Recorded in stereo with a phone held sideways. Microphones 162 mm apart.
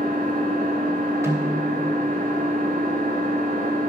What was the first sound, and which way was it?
An engine running, 60° right (ahead or behind).